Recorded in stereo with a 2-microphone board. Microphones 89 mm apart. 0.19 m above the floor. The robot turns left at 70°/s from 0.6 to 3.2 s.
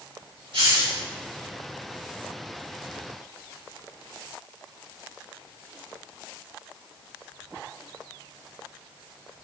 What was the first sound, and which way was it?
A hiss, 85° right.